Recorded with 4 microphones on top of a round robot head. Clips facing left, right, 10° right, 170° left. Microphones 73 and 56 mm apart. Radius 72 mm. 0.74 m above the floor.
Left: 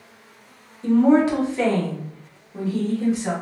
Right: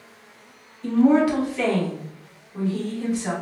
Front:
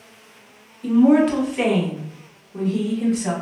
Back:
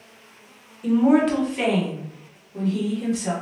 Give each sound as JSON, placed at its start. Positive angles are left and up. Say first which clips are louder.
{"t": 0.8, "sound": "a woman speaking", "louder": "left 1 dB, front 3 dB", "azimuth_deg": 100, "distance_m": 1.1}